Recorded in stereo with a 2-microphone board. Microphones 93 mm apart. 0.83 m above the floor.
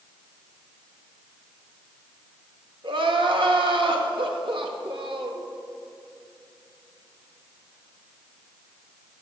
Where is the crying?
65° right (ahead or behind), 0.8 m.